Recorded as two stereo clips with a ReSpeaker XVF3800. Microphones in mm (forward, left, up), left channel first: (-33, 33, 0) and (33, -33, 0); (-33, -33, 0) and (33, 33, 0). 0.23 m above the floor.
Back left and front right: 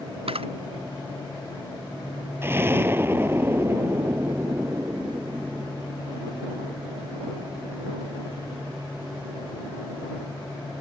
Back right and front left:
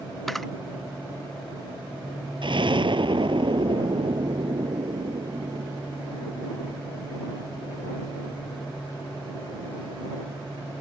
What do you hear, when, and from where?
0.3 s a camera shutter: 45° right
2.4 s an explosion: 20° left